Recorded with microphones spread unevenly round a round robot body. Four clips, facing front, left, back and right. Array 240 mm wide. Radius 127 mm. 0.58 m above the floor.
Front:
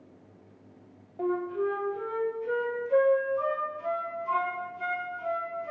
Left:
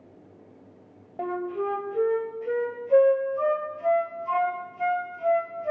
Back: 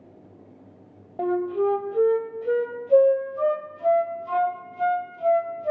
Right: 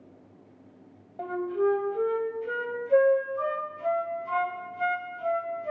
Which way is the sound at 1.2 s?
170° left.